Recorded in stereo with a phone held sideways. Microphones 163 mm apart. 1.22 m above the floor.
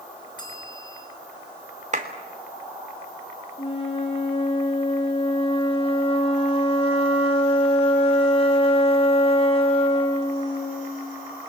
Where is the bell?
25° left (ahead or behind), 5 m.